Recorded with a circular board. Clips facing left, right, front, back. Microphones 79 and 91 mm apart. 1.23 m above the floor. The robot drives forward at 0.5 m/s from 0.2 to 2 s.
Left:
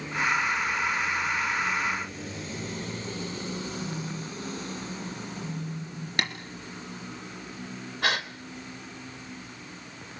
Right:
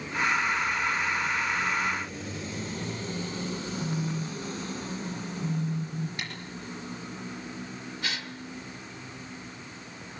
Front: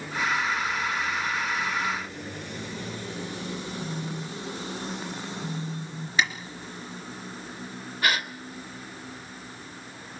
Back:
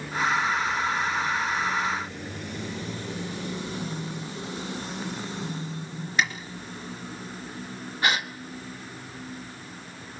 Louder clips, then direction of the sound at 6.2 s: Left 8 dB, even; 95° left.